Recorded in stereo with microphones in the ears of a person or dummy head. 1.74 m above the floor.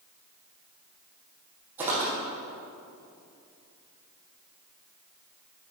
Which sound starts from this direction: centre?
Footsteps, at 1.8 s.